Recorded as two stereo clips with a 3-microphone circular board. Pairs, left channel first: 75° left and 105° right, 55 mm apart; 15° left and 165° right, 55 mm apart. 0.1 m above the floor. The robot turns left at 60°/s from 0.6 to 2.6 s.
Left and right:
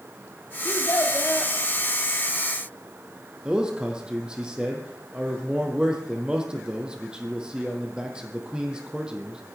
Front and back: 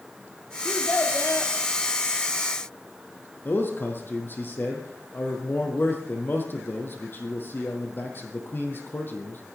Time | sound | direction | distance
0.7 | a child speaking | 85° left | 1.9 m
3.5 | a man speaking | 35° right | 3 m